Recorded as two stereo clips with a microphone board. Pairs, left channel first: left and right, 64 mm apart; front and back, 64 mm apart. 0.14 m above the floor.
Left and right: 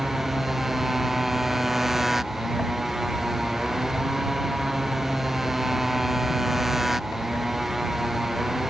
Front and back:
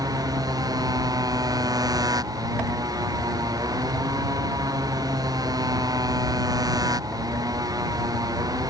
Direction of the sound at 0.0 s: 175° right.